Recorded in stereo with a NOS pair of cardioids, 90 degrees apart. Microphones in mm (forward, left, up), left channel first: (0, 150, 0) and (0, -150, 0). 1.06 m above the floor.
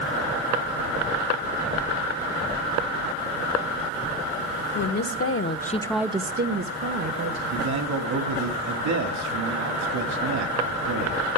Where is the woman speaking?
65° left, 1.4 m; by 7.4 s 65° right, 1.7 m.